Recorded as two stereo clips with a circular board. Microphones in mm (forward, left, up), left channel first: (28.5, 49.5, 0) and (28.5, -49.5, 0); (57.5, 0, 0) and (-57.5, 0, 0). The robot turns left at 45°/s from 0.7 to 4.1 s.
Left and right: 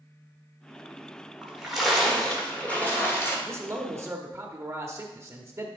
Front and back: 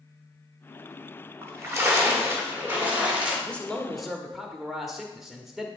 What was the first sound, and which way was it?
A splash, 160° right.